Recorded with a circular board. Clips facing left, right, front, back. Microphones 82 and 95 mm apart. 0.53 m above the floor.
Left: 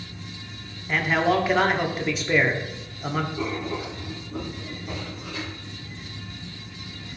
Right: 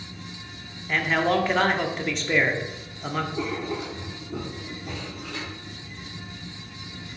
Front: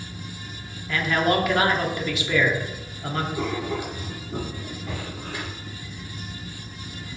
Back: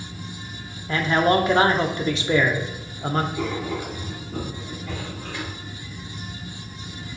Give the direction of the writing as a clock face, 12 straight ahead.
2 o'clock.